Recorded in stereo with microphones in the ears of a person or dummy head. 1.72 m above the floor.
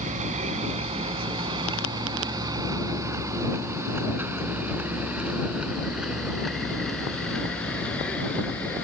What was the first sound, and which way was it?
A vehicle, 40° right (ahead or behind).